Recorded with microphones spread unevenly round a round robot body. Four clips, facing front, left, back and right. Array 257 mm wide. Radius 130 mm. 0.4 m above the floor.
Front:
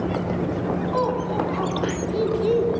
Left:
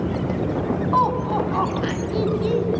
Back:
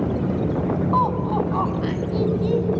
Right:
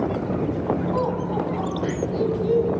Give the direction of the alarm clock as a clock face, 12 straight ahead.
I don't hear an alarm clock.